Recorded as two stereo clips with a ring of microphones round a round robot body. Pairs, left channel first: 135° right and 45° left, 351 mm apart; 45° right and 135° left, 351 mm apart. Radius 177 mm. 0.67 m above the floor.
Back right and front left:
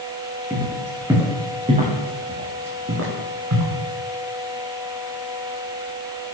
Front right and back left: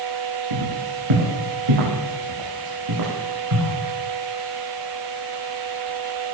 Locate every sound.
0.5 s footsteps: 130° left, 4.5 m; by 3.7 s 90° left, 4.5 m